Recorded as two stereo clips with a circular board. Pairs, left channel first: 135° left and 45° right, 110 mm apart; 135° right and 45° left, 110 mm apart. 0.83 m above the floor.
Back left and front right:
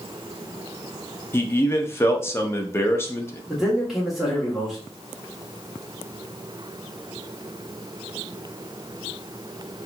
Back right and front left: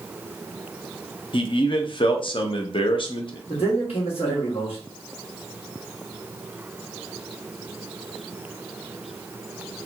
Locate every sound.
1.3 s a man speaking: 160° right, 0.6 m
3.5 s a man speaking: 135° right, 1.4 m